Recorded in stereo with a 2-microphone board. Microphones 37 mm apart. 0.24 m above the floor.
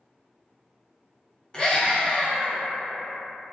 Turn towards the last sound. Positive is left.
turn(degrees=20)  # may be behind; listen again after turning